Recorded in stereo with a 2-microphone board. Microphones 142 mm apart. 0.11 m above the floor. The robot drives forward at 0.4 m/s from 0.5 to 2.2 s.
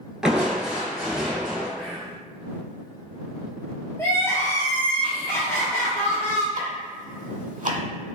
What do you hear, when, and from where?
0.2 s crushing: 5° right (ahead or behind), 0.9 m
1.8 s whispering: 5° left (ahead or behind), 1.3 m
4.0 s crying: 15° left (ahead or behind), 1.5 m
6.5 s ticking: 60° right (ahead or behind), 1.0 m